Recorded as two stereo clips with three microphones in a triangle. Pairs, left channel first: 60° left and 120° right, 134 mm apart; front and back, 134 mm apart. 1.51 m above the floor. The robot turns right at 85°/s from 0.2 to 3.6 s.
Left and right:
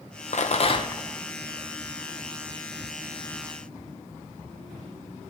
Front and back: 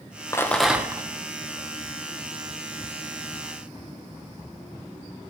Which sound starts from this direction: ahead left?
A rattle, at 0.3 s.